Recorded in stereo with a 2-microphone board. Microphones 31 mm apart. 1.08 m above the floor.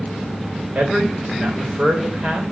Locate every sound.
0.8 s a man speaking: 55° right (ahead or behind), 3.5 m